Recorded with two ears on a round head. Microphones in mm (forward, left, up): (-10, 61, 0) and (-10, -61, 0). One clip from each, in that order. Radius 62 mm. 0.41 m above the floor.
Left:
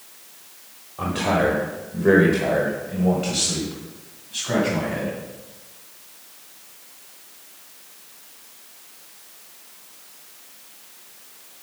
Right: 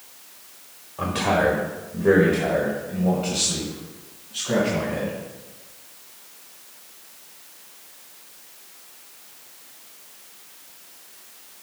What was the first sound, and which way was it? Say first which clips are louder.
A man speaking: even; 20° right (ahead or behind).